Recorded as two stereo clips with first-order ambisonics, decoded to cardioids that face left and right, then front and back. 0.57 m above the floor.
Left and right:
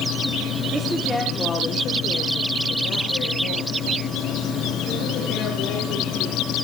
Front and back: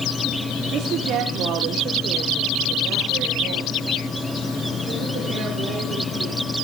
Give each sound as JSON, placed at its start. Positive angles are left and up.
{"t": 0.7, "sound": "a woman speaking", "azimuth_deg": -155, "distance_m": 1.4}